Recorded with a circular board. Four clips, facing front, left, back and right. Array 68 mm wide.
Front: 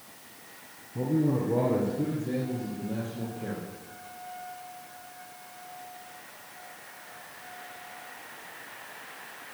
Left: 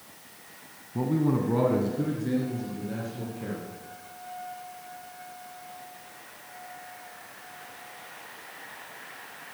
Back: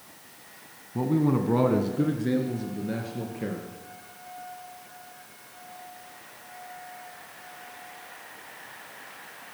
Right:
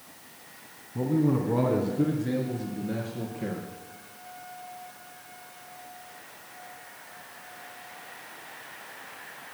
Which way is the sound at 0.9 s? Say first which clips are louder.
Right 1 dB, back 2 dB; 150° left.